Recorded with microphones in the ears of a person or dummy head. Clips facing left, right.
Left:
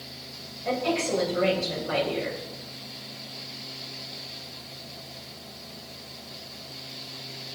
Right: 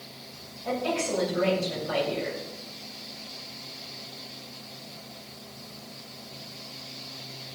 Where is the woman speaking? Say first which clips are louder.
Left 2 dB; 35° left (ahead or behind), 6.5 m.